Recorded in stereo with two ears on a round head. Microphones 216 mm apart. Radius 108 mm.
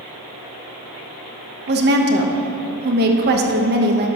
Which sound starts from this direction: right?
A woman speaking, at 1.7 s.